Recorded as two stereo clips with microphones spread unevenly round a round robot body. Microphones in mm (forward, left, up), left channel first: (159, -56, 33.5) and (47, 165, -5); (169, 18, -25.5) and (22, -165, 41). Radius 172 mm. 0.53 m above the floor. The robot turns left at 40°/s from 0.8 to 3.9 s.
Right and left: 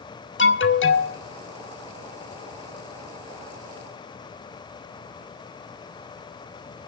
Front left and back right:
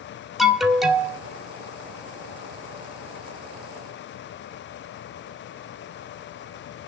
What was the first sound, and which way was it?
An alarm, 25° right.